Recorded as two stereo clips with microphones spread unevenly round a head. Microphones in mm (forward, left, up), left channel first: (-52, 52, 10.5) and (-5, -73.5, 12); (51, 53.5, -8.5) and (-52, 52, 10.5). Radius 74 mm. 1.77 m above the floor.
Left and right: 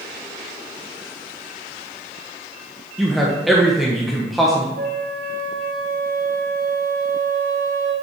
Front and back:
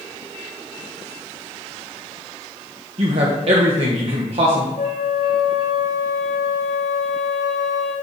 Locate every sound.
3.0 s a man speaking: 160° right, 1.2 m
4.8 s a flute: 45° right, 3.5 m